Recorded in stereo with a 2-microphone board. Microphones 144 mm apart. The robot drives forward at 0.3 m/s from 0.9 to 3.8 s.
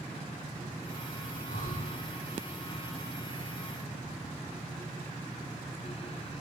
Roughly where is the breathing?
Left.